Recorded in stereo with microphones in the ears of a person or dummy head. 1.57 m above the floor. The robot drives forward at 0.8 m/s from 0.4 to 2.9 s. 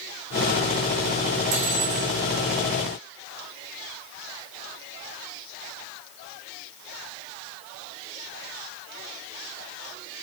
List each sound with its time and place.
1.5 s cutlery clinking: 70° right (ahead or behind), 6 m; by 2.1 s 65° right (ahead or behind), 6.5 m